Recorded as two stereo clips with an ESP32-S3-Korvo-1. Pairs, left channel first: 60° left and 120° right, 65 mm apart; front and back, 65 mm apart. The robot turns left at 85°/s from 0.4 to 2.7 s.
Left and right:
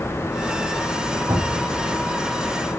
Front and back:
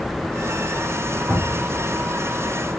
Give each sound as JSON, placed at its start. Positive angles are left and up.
{"t": 1.3, "sound": "a cupboard door", "azimuth_deg": -125, "distance_m": 5.0}